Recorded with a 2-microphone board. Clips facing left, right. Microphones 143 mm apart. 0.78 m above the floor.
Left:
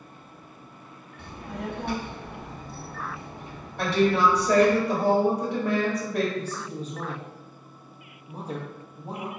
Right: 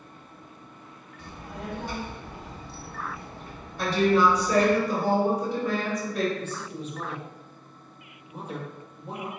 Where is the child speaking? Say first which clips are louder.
Left 4 dB; 65° left (ahead or behind), 0.9 m; by 4.8 s 5° right (ahead or behind), 1.2 m.